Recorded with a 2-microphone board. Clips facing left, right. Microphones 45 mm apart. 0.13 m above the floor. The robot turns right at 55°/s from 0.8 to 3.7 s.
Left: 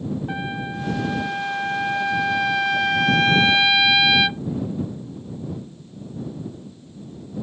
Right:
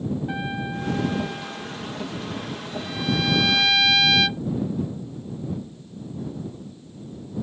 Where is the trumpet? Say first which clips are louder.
Left 1 dB; 10° left; by 4.4 s 165° left.